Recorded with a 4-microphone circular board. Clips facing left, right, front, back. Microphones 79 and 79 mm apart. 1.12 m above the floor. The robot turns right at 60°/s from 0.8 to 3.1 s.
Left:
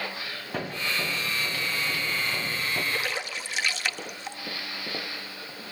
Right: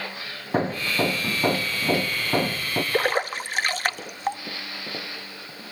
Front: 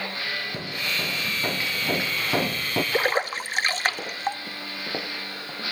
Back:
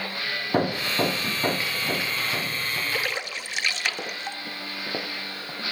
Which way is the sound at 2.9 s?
55° right.